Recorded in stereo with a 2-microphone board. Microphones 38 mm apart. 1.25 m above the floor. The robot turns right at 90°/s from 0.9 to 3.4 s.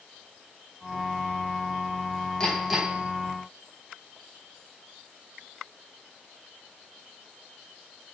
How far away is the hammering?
About 4 m.